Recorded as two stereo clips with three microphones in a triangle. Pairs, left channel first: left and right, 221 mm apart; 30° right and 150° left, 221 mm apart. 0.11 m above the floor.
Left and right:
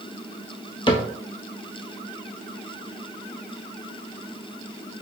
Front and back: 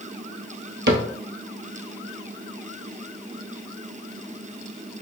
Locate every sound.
0.9 s a cupboard door: 150° left, 0.8 m